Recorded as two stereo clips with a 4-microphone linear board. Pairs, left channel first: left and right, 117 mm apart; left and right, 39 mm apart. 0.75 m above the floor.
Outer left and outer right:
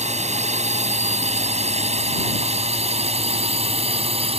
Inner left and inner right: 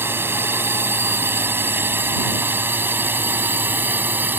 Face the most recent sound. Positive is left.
turn(degrees=-60)  # may be behind; listen again after turning